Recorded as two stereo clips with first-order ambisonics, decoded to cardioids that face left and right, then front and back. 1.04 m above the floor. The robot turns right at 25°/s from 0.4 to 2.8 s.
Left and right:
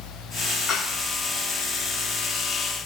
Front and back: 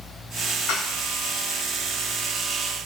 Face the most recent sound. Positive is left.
turn(degrees=80)